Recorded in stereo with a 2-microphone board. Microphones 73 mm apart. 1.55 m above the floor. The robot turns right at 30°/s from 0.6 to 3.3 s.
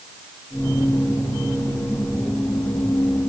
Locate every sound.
Only background noise.